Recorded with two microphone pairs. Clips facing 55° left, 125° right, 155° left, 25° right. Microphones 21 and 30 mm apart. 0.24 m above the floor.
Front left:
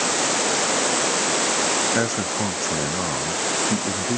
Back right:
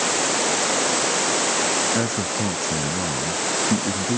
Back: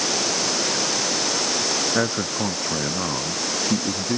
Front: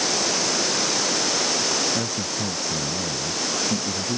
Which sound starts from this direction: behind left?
A man speaking, at 1.9 s.